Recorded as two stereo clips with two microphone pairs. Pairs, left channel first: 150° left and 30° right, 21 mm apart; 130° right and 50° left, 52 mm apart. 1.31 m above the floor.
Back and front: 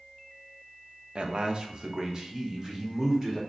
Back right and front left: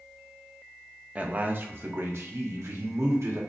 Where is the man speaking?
5° right, 0.8 m; by 3.4 s 40° left, 1.7 m.